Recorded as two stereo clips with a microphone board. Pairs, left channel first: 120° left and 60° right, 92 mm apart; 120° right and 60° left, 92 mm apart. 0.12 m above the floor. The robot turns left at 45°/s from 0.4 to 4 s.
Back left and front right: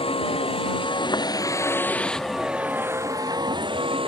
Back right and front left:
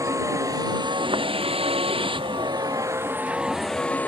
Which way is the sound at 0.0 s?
115° left.